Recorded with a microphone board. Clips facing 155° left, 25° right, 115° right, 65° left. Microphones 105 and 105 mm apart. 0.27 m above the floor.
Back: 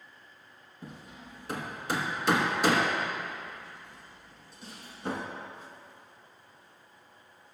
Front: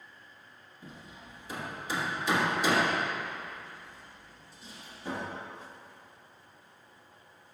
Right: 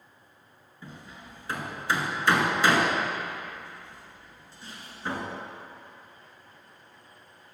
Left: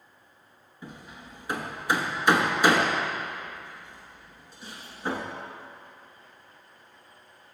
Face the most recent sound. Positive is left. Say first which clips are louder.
# back 3 dB, left 1 dB
turn(degrees=140)